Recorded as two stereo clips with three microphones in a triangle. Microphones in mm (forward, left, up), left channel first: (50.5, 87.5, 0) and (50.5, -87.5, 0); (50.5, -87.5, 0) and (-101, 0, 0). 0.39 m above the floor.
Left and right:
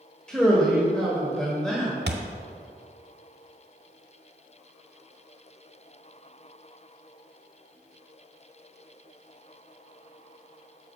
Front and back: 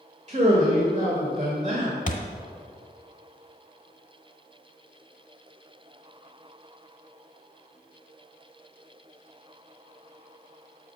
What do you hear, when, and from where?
0.3 s a man speaking: 175° left, 1.3 m
2.1 s a thud: 75° right, 0.8 m